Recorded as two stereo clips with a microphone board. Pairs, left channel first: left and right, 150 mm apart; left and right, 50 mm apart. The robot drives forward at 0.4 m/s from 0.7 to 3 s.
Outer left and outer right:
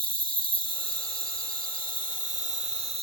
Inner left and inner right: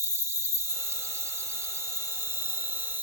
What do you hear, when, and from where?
0.0 s an insect: 75° right (ahead or behind), 0.7 m; by 3.0 s 45° right (ahead or behind), 1.0 m